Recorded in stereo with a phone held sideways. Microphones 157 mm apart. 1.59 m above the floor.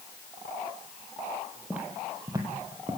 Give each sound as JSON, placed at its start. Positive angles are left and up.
{"t": 1.7, "sound": "footsteps", "side_deg": -10, "distance_m": 3.0}